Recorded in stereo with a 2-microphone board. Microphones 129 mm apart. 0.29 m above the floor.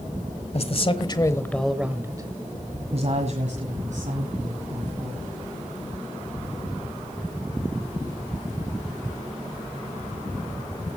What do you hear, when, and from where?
0.5 s a man speaking: 50° left (ahead or behind), 1.3 m; by 5.2 s 70° right (ahead or behind), 3.5 m